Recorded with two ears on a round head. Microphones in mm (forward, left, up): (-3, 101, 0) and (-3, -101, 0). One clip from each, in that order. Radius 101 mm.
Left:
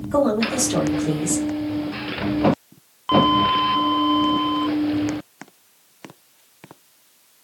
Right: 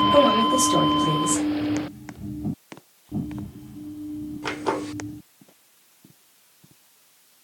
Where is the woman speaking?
10° right (ahead or behind), 3 m.